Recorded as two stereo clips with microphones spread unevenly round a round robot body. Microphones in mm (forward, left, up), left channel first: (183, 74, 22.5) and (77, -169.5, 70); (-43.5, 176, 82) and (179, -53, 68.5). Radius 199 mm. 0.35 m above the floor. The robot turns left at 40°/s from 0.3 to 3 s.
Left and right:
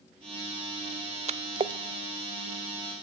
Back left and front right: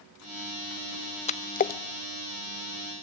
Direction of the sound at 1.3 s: 175° right.